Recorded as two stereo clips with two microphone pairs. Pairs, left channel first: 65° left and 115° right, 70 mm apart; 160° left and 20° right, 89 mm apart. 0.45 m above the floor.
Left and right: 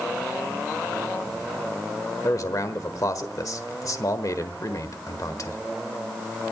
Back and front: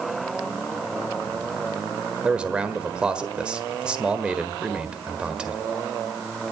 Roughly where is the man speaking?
Ahead left.